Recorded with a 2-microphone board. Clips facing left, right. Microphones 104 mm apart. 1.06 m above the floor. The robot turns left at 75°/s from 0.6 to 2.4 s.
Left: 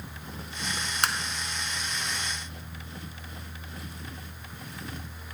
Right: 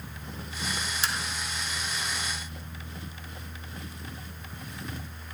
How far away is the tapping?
About 0.5 m.